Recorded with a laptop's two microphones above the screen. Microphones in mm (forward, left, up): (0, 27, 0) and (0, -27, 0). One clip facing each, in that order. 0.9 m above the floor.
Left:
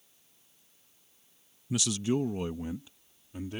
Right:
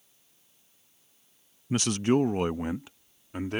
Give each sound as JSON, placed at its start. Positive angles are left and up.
{"t": 1.7, "sound": "a man speaking", "side_deg": -40}